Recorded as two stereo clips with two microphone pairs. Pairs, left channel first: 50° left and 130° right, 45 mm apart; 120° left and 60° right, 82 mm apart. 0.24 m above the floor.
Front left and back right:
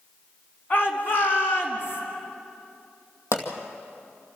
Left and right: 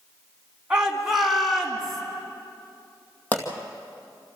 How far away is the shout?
About 2.5 m.